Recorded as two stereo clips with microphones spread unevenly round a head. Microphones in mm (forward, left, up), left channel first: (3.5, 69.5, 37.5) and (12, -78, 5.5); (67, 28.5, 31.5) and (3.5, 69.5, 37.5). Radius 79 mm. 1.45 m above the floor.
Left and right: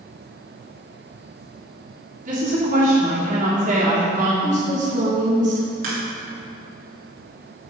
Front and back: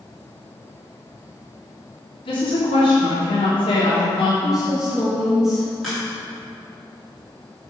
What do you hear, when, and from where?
2.2 s a woman speaking: 45° right, 2.5 m
4.4 s a woman speaking: 130° right, 1.8 m
5.8 s a crack: 120° right, 2.5 m